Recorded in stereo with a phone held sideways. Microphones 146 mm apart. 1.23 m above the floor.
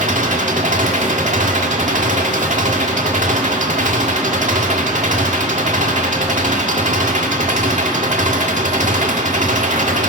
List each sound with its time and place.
0.0 s an engine running: 60° right (ahead or behind), 1.9 m